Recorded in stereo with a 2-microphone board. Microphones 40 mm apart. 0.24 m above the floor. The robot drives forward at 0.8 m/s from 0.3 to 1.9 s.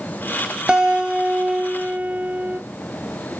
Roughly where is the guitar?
Right.